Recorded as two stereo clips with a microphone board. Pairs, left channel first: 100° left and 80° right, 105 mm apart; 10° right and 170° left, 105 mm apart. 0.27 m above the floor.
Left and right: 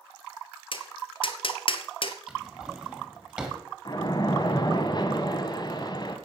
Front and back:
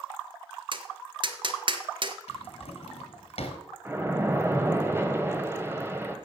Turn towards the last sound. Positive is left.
turn(degrees=110)